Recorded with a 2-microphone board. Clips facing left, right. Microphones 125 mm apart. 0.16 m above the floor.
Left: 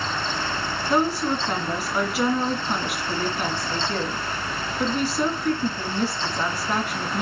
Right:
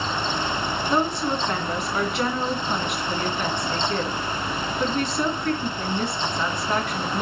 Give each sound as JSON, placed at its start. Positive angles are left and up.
{"t": 0.9, "sound": "a woman speaking", "side_deg": 5, "distance_m": 1.9}